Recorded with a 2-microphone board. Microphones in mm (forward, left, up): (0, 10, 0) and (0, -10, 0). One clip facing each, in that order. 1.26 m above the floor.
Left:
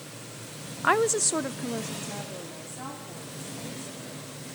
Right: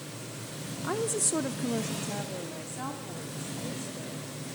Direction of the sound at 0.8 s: 80° left.